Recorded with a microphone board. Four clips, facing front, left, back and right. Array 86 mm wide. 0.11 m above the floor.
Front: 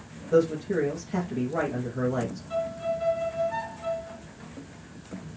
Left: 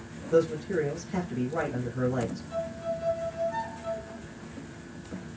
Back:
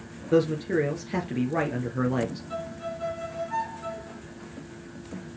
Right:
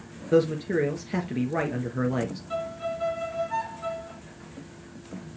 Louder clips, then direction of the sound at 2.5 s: Right 2 dB, front 5 dB; 100° right.